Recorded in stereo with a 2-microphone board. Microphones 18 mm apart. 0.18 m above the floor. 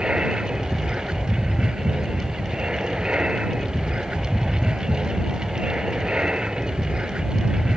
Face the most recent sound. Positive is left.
turn(degrees=-65)  # may be behind; listen again after turning